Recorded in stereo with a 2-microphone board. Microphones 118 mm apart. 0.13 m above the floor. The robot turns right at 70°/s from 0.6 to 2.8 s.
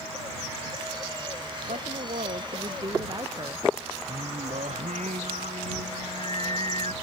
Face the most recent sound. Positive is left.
turn(degrees=-75)  # may be behind; listen again after turning